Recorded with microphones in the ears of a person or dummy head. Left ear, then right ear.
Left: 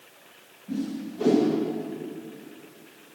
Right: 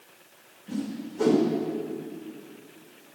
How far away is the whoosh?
About 2.5 m.